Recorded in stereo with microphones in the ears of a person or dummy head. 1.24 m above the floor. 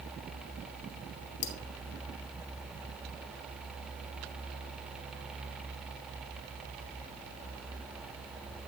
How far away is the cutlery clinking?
About 1.0 m.